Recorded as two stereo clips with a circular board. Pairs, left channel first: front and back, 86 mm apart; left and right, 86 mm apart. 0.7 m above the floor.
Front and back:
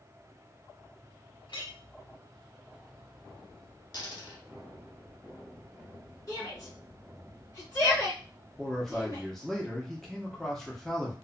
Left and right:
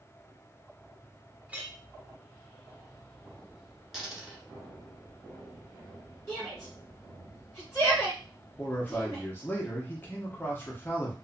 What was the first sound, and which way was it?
A clink, 20° right.